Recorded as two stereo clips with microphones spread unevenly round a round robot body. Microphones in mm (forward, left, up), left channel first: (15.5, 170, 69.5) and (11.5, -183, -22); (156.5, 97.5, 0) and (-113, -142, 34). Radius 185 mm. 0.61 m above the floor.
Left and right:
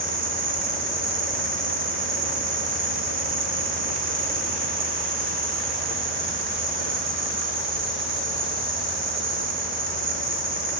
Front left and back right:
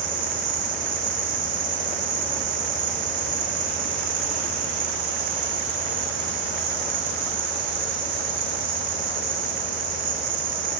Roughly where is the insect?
Behind right.